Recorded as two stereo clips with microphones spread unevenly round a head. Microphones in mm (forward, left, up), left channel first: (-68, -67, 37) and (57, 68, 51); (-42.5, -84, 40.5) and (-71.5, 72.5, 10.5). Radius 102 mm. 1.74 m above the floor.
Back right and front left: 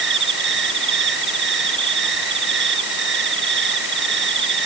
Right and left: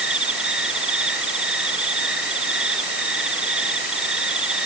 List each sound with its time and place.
0.0 s an insect: 15° left